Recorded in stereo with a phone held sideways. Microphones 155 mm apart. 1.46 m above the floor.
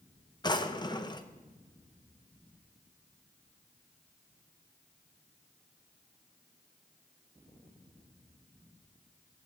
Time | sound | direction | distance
0.4 | a drawer | 30° left (ahead or behind) | 0.6 m